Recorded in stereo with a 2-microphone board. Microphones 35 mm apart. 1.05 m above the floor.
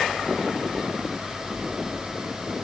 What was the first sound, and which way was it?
Only background noise.